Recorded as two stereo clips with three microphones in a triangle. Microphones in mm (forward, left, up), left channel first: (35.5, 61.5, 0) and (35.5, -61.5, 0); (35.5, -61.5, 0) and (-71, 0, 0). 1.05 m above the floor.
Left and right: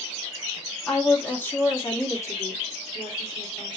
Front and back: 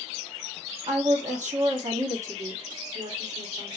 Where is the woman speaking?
175° left, 1.8 m; by 3.8 s 140° left, 2.5 m.